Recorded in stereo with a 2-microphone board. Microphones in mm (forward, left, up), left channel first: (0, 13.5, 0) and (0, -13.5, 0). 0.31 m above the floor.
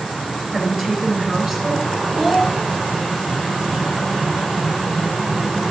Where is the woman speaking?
5° left (ahead or behind), 3.5 m.